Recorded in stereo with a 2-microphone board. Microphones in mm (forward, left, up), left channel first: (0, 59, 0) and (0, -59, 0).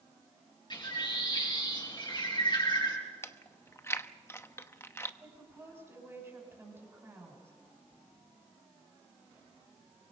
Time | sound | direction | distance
0.7 | a bird | 40° left (ahead or behind) | 7 m
3.2 | chewing | 20° left (ahead or behind) | 0.9 m
5.2 | a woman speaking | 20° right (ahead or behind) | 7 m